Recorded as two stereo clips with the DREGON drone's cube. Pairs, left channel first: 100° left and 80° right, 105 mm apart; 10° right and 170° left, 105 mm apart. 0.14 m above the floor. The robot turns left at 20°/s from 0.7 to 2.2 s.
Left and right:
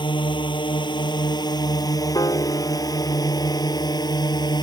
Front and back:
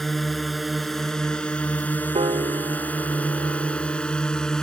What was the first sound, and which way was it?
A drone, 80° left.